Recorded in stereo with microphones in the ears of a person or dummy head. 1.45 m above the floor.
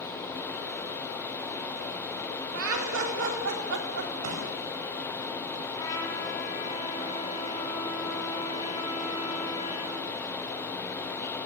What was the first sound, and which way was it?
Laughter, 70° right (ahead or behind).